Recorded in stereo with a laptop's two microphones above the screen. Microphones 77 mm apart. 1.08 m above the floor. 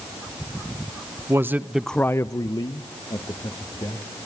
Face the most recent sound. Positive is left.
turn(degrees=65)  # may be behind; listen again after turning